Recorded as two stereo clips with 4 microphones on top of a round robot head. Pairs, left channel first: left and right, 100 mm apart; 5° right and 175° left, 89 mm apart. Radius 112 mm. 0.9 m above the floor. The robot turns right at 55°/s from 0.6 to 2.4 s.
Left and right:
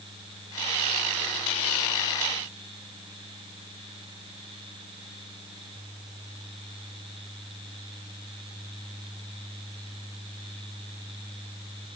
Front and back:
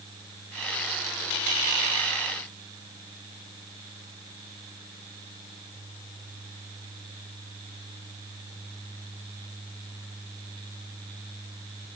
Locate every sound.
Only background noise.